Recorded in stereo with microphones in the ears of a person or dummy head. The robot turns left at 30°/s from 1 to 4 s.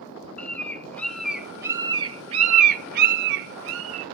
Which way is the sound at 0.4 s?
10° left (ahead or behind).